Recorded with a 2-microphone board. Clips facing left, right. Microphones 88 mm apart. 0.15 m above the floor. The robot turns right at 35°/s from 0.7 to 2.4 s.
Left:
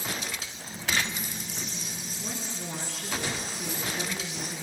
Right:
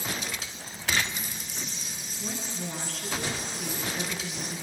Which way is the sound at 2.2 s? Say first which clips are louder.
Right 3 dB; centre (ahead or behind).